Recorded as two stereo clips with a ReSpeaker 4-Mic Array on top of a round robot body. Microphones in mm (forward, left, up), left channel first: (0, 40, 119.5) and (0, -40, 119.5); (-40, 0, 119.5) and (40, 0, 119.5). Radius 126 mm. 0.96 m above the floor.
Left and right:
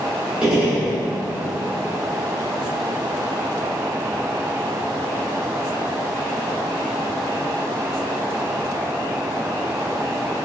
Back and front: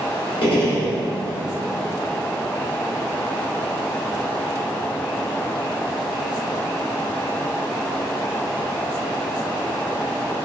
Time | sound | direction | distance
0.4 | a gunshot | 170° right | 0.9 m